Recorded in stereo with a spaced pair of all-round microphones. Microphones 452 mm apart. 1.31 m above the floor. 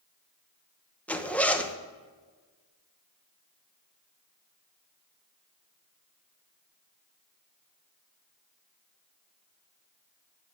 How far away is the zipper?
About 0.7 m.